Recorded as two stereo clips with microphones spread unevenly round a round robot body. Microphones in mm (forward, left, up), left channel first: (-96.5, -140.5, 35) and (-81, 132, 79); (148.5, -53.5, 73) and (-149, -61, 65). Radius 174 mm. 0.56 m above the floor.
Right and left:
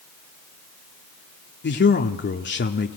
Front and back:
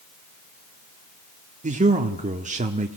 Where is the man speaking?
120° right, 1.2 m.